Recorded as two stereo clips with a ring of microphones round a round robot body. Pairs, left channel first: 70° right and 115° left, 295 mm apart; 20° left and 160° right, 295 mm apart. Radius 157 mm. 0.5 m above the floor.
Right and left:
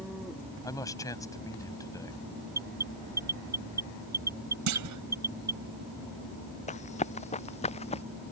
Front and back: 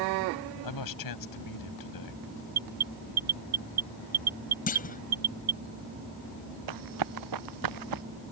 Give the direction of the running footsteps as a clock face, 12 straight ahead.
5 o'clock.